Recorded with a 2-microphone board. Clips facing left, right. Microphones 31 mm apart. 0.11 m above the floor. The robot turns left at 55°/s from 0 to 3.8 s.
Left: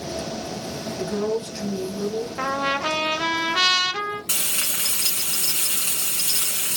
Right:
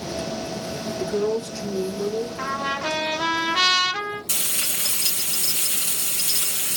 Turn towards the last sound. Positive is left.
turn(degrees=85)